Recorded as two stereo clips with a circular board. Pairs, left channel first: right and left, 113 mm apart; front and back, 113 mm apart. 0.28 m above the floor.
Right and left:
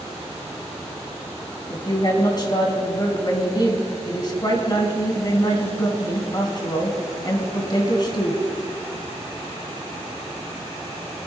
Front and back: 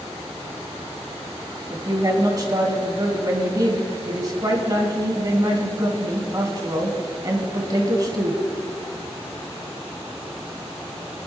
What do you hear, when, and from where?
1.7 s a woman speaking: 135° right, 2.5 m